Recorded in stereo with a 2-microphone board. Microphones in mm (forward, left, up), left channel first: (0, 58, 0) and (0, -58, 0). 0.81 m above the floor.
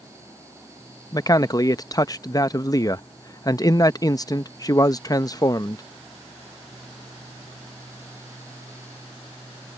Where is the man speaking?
30° left (ahead or behind).